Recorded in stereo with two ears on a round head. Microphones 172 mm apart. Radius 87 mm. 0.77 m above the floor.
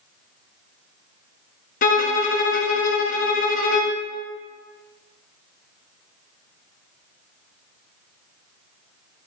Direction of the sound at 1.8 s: 45° left (ahead or behind).